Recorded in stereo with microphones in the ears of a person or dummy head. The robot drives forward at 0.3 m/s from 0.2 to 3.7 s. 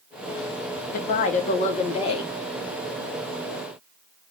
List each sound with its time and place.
0.9 s a woman speaking: 50° left (ahead or behind), 0.7 m; by 2.3 s 30° left (ahead or behind), 1.0 m